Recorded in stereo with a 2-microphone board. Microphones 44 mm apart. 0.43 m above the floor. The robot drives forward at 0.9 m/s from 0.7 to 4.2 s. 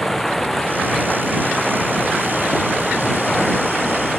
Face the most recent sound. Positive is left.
turn(degrees=5)  # may be behind; listen again after turning